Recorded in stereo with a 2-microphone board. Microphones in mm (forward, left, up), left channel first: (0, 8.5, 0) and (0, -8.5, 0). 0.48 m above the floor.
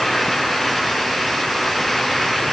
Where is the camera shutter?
No camera shutter in this recording.